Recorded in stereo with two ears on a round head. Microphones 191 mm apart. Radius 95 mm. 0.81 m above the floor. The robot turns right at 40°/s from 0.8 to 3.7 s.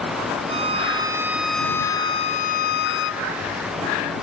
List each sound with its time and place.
0.5 s a violin: 30° right; by 3.3 s 70° left